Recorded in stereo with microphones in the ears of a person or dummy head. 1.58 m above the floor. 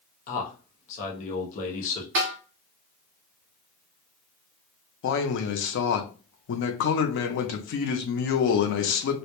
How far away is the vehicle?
No vehicle in this recording.